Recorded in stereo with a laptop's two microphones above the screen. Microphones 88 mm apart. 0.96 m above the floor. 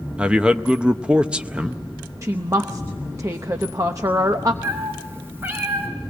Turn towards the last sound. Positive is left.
turn(degrees=-25)  # may be behind; listen again after turning